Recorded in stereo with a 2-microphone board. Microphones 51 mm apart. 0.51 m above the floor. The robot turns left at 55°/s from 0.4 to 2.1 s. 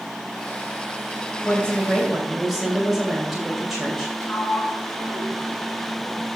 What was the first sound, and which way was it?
A woman speaking, 35° left.